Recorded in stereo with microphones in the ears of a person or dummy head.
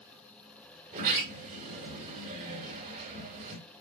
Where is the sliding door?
40° right (ahead or behind), 4 m.